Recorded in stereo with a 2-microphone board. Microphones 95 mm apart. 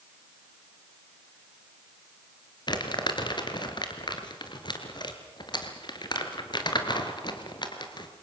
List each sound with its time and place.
2.7 s crumpling: 50° left (ahead or behind), 2.5 m